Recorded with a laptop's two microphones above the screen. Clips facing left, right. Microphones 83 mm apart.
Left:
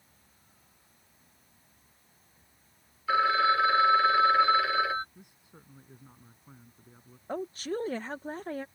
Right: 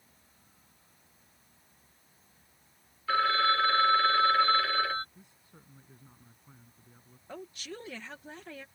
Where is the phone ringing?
10° left (ahead or behind).